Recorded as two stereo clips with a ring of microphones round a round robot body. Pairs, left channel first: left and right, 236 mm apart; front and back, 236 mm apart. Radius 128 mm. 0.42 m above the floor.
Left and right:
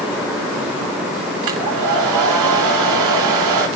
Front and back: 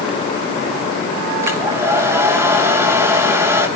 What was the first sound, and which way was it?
A hair dryer, 100° right.